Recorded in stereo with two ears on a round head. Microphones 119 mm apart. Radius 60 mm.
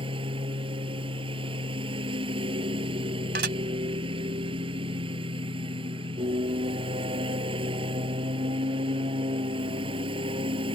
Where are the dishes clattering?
85° right.